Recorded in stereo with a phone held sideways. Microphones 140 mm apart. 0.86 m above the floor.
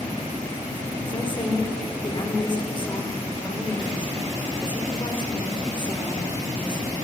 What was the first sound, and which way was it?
A woman speaking, 35° left (ahead or behind).